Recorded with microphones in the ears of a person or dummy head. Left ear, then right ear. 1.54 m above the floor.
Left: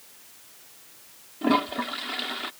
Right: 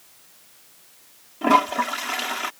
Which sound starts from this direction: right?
A toilet flushing, at 1.4 s.